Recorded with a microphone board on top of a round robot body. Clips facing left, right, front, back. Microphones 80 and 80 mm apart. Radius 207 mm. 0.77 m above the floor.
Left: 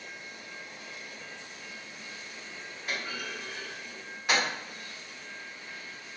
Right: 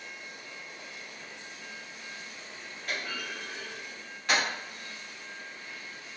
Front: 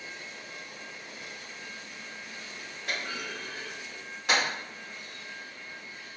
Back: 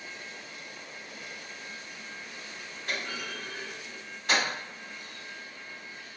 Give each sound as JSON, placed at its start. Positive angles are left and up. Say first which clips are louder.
{"t": 2.9, "sound": "a clunk", "louder": "even, even", "azimuth_deg": 10, "distance_m": 1.1}